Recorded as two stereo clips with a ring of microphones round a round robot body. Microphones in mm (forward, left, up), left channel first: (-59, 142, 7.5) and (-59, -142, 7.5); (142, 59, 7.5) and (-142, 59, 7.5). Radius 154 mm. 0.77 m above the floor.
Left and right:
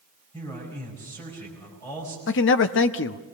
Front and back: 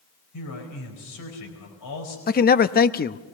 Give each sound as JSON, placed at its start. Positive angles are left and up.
{"t": 0.3, "sound": "a man speaking", "azimuth_deg": 10, "distance_m": 5.0}
{"t": 2.3, "sound": "a man speaking", "azimuth_deg": 50, "distance_m": 0.7}